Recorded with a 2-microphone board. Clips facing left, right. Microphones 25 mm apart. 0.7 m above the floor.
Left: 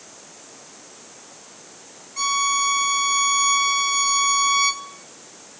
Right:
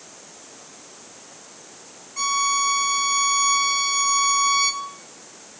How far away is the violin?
About 1.3 m.